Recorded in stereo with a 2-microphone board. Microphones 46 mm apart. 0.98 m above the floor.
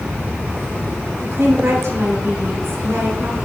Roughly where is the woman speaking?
Right.